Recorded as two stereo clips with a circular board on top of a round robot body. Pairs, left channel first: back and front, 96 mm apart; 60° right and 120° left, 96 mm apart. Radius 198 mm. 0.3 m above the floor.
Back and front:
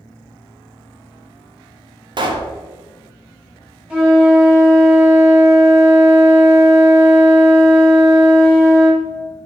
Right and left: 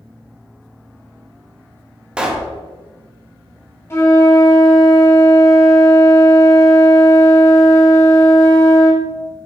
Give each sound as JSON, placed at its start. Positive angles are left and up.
{"t": 2.2, "sound": "a pop", "azimuth_deg": 40, "distance_m": 0.6}
{"t": 3.9, "sound": "a flute", "azimuth_deg": -70, "distance_m": 1.5}